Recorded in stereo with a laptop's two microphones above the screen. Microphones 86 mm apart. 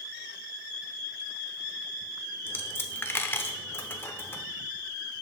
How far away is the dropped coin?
About 0.8 m.